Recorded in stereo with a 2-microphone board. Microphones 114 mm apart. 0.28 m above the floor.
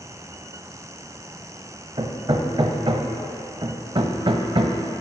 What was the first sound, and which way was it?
Hammering, 45° right (ahead or behind).